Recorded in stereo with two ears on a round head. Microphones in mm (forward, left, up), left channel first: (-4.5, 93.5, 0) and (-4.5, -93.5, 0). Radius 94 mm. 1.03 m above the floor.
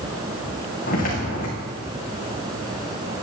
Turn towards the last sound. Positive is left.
turn(degrees=40)  # may be behind; listen again after turning